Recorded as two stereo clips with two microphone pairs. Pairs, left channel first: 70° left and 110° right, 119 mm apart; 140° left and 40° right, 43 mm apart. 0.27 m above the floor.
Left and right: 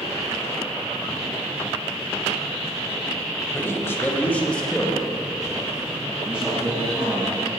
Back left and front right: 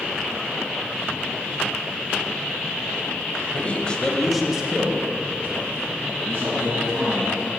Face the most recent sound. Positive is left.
turn(degrees=-30)